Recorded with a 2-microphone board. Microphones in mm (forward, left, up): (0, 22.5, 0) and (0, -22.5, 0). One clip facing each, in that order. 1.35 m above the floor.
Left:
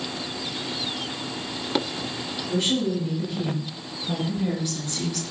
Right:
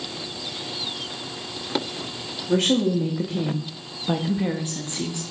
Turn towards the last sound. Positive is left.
turn(degrees=-15)  # may be behind; listen again after turning